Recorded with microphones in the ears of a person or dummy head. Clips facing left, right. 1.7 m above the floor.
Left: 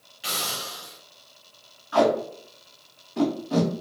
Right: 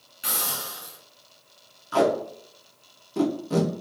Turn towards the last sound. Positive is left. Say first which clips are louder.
# left 1 dB
turn(degrees=-55)  # may be behind; listen again after turning